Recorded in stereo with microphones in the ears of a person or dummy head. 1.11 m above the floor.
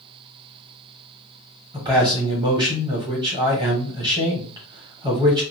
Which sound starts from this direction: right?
A man speaking, at 1.7 s.